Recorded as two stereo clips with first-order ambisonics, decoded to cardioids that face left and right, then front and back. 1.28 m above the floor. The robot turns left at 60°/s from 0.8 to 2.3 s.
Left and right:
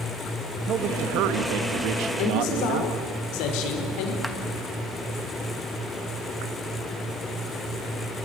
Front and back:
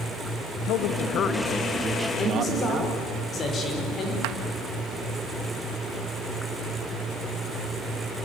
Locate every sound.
0.7 s a man speaking: 35° right, 1.4 m; by 2.9 s 125° right, 1.4 m
2.2 s a man speaking: 75° left, 5 m; by 4.1 s 70° left, 5 m
4.2 s a clap: straight behind, 1.4 m